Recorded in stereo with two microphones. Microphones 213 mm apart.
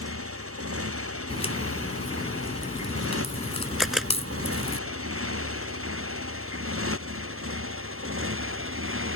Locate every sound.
0.0 s a motorcycle: 90° right; by 9.2 s 70° right (ahead or behind)
1.3 s a crack: 30° left (ahead or behind)
3.8 s a camera shutter: centre (ahead or behind)